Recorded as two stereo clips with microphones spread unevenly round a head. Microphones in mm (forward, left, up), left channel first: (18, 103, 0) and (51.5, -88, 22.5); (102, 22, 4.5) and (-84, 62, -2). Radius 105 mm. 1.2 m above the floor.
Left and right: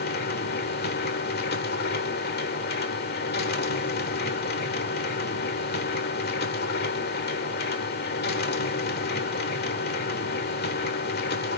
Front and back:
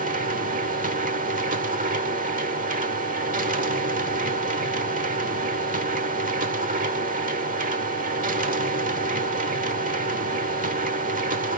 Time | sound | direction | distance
0.0 | a machine running | 135° left | 1.1 m